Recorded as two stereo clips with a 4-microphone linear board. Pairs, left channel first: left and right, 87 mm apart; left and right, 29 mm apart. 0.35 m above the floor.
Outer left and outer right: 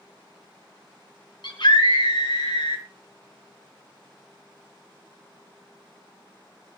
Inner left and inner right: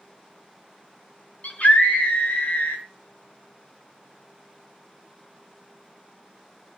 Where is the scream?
65° left (ahead or behind), 4.5 m; by 2.8 s 75° left (ahead or behind), 5 m.